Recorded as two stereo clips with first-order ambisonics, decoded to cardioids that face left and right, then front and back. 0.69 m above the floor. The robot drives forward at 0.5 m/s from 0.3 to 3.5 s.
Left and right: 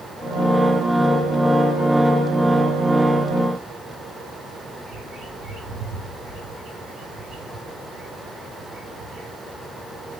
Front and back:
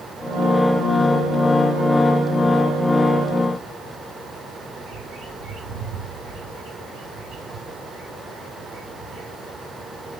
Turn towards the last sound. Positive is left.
turn(degrees=-140)